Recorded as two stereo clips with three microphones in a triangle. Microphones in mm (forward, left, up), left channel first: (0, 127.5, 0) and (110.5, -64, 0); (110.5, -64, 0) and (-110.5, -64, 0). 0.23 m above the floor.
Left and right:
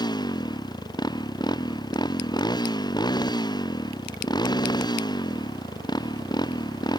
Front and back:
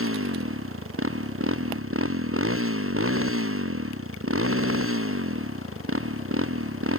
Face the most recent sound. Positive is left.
turn(degrees=-170)